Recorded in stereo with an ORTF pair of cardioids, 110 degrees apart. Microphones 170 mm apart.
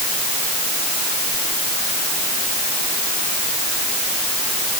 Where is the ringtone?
No ringtone in this recording.